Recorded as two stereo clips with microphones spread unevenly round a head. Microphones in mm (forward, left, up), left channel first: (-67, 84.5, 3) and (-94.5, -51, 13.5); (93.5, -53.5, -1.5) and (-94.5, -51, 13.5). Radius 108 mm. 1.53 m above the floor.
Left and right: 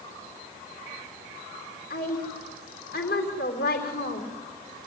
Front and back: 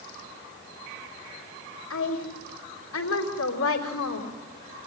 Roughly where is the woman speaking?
Ahead left.